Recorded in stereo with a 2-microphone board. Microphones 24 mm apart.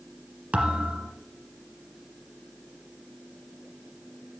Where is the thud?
70° right (ahead or behind), 1.6 m.